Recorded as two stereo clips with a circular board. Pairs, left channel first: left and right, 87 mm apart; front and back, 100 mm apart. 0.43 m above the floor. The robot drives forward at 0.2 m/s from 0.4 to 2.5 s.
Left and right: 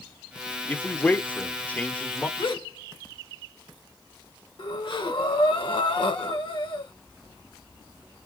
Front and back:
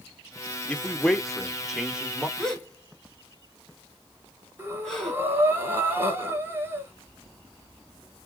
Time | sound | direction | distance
0.7 | a man speaking | 55° left | 0.8 m
2.4 | a gasp | 85° left | 1.9 m
4.6 | breathing | 110° left | 1.3 m